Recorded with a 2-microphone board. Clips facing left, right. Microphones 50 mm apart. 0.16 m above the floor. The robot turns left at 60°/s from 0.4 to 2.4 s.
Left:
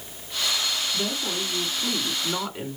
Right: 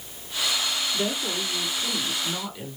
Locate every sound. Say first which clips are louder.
0.9 s a woman speaking: right 1 dB; 170° left, 2 m; by 2.8 s 80° left, 2 m